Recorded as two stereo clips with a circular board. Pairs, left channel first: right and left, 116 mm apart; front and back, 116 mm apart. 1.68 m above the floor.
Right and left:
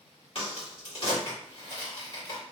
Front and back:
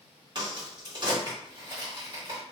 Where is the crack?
130° right, 1.4 m.